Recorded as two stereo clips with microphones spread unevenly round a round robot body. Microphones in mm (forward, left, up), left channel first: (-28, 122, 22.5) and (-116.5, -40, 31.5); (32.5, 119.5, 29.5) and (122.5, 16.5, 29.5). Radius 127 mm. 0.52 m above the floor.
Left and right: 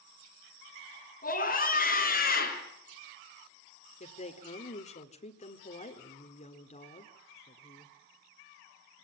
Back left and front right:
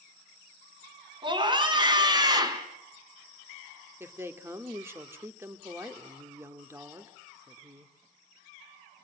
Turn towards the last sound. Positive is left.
turn(degrees=20)